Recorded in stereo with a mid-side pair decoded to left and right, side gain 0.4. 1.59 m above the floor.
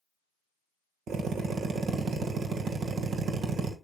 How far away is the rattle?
I don't hear a rattle.